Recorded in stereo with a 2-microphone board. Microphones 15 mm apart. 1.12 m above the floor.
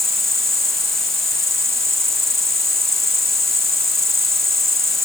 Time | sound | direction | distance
0.0 | an insect | 15° left (ahead or behind) | ?